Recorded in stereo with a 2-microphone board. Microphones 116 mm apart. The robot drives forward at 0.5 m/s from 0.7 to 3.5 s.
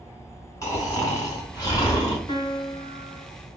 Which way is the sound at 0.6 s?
30° left (ahead or behind).